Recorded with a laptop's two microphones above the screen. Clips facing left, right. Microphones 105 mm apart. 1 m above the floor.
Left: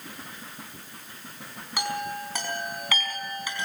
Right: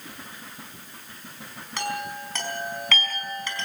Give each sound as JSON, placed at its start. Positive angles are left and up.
{"t": 1.8, "sound": "a chime", "side_deg": 10, "distance_m": 4.5}